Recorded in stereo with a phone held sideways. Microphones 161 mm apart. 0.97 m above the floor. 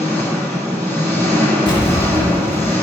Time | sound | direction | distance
0.0 | an engine running | 15° left (ahead or behind) | 1.8 m
1.7 | an explosion | 30° left (ahead or behind) | 1.1 m